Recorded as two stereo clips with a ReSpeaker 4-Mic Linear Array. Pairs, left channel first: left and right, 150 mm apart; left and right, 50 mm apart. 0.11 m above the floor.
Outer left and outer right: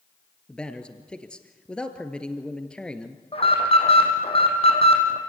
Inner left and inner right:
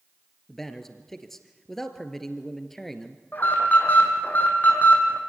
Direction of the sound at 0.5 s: 5° left (ahead or behind).